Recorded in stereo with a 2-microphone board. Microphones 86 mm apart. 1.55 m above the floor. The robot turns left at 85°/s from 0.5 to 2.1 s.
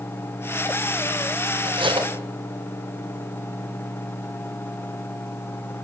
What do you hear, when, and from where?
1.6 s cutlery clinking: 65° right, 4.5 m; by 2.1 s 100° right, 4.5 m